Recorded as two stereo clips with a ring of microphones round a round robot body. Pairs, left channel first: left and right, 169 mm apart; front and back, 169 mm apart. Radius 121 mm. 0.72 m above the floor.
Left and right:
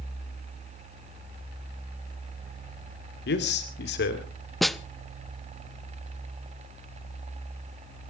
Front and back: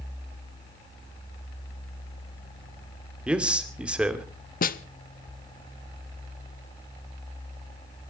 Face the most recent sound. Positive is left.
turn(degrees=0)